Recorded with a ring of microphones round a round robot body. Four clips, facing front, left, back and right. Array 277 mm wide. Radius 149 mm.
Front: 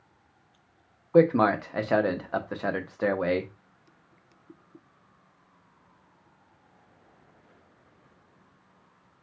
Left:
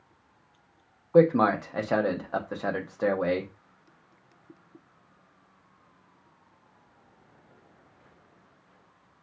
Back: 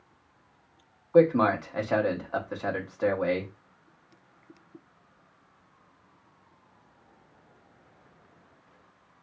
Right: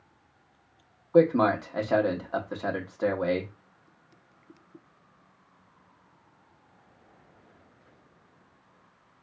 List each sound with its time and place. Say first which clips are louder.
1.1 s a man speaking: left 1 dB, even; 20° left, 0.7 m